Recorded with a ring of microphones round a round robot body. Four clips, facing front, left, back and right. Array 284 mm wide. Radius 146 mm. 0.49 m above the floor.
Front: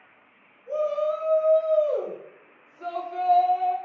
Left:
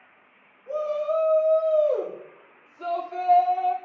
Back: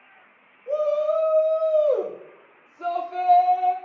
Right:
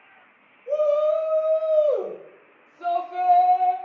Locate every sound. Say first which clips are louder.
0.7 s a shout: right 6 dB, back 3 dB; 145° right, 1.6 m; by 3.8 s 105° left, 1.2 m